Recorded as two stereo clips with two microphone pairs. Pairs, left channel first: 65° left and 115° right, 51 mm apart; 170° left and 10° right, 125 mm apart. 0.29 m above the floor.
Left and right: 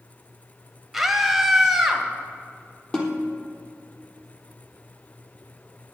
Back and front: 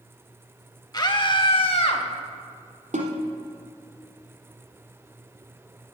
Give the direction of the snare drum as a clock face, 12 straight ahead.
12 o'clock.